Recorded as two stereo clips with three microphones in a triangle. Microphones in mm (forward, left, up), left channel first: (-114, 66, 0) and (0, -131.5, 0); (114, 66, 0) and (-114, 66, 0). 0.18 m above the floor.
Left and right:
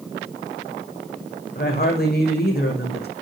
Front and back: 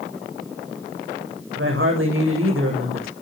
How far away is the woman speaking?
About 8.5 m.